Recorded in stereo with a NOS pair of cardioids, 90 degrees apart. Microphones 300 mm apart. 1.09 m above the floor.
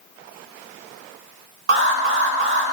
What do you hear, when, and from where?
1.7 s an alarm: 45° right, 3.5 m